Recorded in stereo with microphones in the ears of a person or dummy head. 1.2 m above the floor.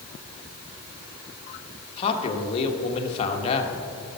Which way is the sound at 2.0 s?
30° left (ahead or behind).